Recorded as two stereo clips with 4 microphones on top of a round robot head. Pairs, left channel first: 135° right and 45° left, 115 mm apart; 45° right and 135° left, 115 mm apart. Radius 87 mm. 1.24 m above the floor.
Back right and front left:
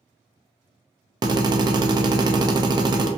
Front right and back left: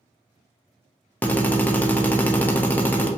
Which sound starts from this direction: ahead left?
A drill, at 1.2 s.